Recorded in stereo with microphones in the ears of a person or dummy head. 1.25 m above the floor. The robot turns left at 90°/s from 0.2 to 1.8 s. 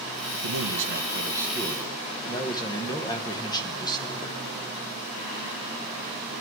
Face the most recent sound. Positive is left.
turn(degrees=155)